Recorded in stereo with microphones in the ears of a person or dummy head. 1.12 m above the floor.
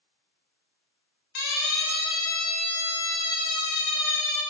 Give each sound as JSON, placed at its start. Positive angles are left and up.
{"t": 1.4, "sound": "a siren", "side_deg": 60, "distance_m": 3.5}